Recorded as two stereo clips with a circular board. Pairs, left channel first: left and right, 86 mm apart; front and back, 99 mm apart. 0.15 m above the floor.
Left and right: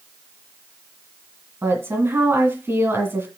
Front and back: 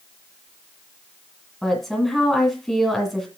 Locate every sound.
1.6 s a woman speaking: 85° right, 1.7 m